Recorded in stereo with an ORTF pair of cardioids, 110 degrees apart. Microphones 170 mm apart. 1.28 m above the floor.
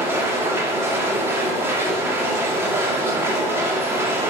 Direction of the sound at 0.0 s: 15° right.